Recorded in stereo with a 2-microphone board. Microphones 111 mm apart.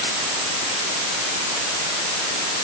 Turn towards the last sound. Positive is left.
No sound to turn to.